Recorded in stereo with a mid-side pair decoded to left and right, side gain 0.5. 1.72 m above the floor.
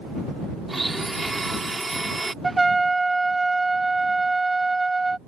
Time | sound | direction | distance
0.7 | a blender | 20° right | ?
2.4 | a trumpet | 20° right | ?